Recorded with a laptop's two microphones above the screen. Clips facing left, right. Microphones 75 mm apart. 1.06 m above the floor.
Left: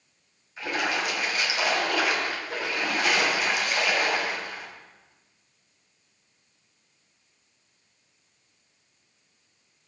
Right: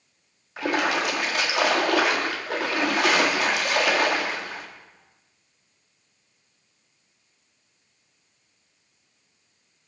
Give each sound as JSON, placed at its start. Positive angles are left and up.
{"t": 0.6, "sound": "a splash", "side_deg": -75, "distance_m": 1.7}